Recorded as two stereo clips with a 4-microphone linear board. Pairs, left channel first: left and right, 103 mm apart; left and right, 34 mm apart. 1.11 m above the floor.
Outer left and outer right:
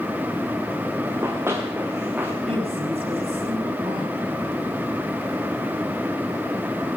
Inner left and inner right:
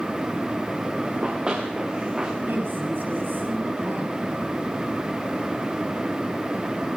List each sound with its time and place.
1.0 s running footsteps: 25° right (ahead or behind), 8 m; by 2.3 s 20° right (ahead or behind), 8.5 m
2.5 s a woman speaking: 80° right, 8.5 m